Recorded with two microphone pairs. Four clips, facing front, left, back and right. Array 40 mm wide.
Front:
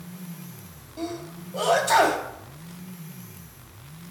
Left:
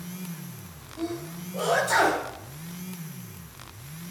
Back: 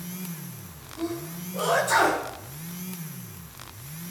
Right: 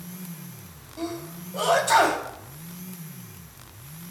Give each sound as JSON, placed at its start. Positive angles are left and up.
{"t": 1.0, "sound": "a sneeze", "azimuth_deg": -45, "distance_m": 4.0}